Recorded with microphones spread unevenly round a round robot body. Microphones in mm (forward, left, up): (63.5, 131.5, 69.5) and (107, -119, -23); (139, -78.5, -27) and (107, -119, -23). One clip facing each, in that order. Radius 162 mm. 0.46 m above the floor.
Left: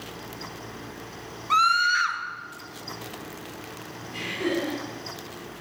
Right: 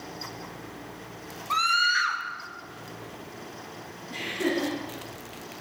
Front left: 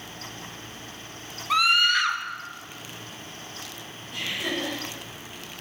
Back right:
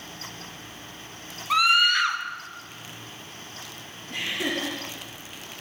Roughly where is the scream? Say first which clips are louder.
Left 4 dB, back right 1 dB; ahead right.